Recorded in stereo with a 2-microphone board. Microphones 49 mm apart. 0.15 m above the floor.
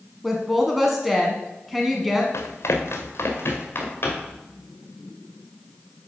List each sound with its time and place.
0.2 s a woman speaking: 5° right (ahead or behind), 1.1 m
2.3 s running footsteps: 80° left, 1.6 m; by 4.4 s 45° left (ahead or behind), 4 m